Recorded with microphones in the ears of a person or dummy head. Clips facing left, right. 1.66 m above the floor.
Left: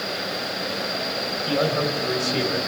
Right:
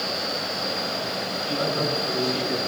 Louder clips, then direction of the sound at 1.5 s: Left 4 dB; 60° left (ahead or behind).